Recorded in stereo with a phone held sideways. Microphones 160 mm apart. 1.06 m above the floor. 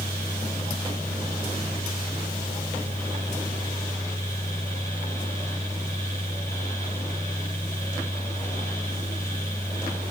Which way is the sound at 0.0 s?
20° left (ahead or behind).